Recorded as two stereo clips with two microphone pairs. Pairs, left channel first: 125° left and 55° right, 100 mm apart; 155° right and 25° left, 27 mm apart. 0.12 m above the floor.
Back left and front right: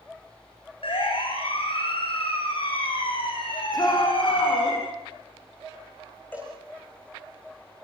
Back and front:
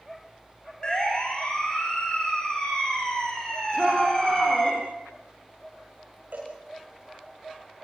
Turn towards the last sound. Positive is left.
turn(degrees=55)